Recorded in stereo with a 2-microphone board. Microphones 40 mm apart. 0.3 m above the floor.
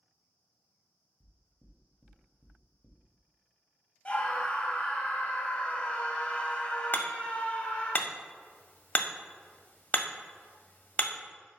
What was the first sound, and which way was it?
Knocking, 10° right (ahead or behind).